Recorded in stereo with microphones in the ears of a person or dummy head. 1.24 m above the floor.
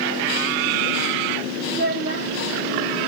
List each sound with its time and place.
1.7 s a child speaking: 55° right (ahead or behind), 1.1 m